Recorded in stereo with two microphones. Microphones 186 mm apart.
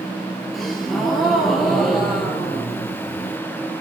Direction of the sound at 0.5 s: Centre (ahead or behind).